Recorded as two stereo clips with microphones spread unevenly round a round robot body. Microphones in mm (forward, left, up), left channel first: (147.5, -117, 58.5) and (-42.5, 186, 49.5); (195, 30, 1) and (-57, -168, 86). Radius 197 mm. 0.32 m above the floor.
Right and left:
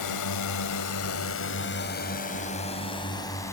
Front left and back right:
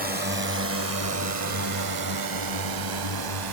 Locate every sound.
0.0 s a drone: 75° right; by 3.5 s 140° right